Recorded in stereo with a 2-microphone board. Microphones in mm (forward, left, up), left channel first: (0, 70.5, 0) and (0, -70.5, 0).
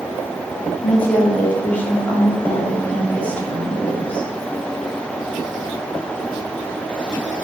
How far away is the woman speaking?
About 3.5 m.